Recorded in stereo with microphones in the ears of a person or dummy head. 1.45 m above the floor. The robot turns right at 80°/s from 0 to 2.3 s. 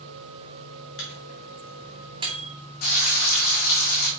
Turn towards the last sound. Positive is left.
turn(degrees=50)  # may be behind; listen again after turning